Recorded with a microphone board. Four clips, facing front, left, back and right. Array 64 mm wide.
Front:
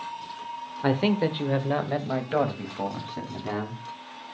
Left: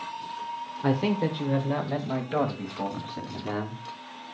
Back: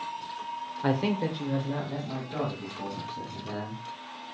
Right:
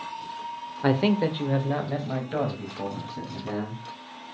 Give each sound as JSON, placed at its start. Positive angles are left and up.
{"t": 0.8, "sound": "a man speaking", "azimuth_deg": -60, "distance_m": 1.2}